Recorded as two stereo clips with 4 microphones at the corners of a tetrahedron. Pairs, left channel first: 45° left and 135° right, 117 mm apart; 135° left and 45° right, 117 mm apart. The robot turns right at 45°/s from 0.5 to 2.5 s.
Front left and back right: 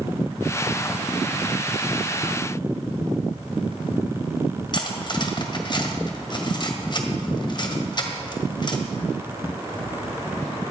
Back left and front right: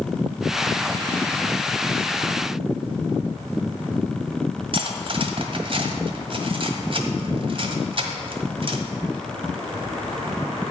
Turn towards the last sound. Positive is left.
turn(degrees=-5)